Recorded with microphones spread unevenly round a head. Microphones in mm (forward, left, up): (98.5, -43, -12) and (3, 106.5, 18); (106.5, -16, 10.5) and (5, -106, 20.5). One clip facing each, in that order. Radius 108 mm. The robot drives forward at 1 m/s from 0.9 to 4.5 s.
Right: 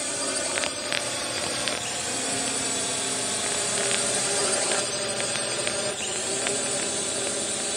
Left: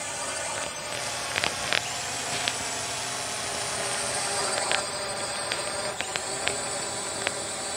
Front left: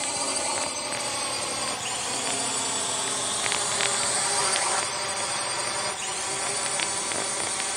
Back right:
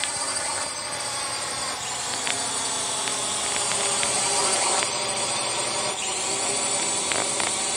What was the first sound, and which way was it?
A drone, 25° right.